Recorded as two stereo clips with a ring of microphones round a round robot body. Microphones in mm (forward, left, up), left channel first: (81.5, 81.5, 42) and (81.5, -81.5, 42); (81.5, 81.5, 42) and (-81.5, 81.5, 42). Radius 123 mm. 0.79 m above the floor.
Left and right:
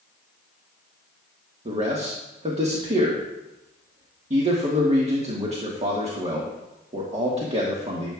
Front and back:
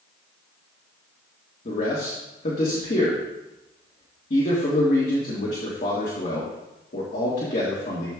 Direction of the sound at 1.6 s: 45° right.